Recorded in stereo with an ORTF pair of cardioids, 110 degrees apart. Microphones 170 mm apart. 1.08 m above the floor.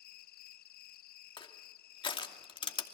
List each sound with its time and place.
0.0 s an insect: 60° left, 0.7 m
1.4 s crushing: 30° left, 2.5 m